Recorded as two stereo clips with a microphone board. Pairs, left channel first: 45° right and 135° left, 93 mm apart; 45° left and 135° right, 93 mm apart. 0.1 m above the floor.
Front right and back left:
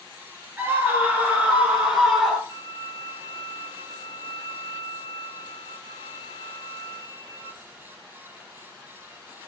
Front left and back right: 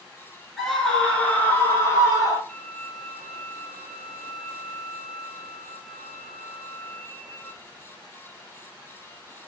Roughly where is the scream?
Behind left.